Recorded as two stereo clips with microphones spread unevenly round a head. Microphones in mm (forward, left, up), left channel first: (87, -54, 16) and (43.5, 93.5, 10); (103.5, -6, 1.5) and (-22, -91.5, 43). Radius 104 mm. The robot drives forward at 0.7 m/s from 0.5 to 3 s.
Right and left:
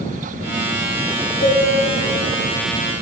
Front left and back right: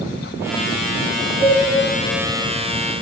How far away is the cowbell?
About 1.8 m.